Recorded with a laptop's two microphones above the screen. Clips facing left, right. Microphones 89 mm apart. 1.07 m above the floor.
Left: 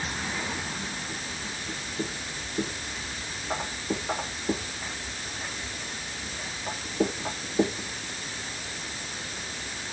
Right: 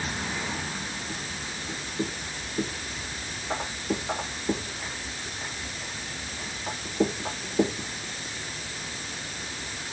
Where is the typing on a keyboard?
I don't hear typing on a keyboard.